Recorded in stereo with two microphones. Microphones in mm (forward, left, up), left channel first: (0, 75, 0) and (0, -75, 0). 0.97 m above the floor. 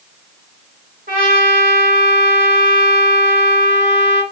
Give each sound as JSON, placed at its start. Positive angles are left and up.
{"t": 1.1, "sound": "a trumpet", "side_deg": -70, "distance_m": 1.4}